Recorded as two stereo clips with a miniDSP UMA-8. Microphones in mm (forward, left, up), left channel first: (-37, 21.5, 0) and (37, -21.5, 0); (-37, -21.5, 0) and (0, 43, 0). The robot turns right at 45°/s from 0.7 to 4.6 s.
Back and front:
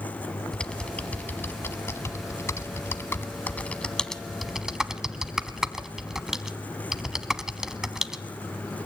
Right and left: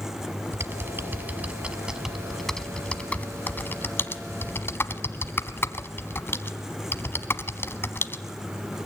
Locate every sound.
0.5 s typing on a keyboard: 75° left, 1.2 m; by 8.2 s 110° right, 1.2 m